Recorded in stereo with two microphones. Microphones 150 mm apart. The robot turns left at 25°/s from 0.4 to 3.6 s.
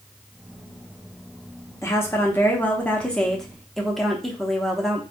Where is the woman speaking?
20° left (ahead or behind), 0.7 m; by 5.0 s centre (ahead or behind), 0.7 m.